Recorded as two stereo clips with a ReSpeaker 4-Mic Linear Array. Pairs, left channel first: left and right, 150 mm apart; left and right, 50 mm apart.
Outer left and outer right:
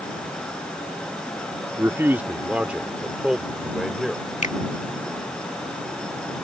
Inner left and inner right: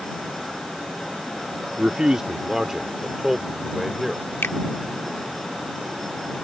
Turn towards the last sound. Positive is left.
turn(degrees=55)  # may be behind; listen again after turning